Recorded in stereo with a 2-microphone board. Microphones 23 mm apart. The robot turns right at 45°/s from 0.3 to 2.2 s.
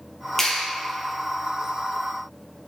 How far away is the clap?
About 2.5 m.